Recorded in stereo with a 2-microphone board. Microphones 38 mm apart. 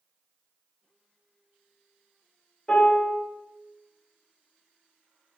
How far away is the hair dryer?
No hair dryer in this recording.